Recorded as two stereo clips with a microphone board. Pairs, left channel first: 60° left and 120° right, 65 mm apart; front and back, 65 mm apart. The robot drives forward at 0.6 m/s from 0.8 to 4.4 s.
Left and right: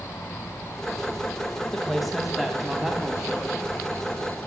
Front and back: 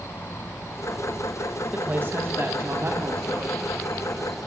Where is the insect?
20° left, 3.5 m; by 4.5 s 75° left, 2.5 m.